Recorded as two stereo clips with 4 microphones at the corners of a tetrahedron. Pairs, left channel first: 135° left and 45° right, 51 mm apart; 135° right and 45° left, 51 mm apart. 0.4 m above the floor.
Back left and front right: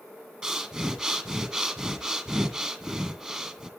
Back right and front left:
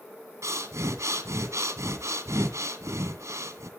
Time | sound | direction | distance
0.4 | breathing | 25° left | 2 m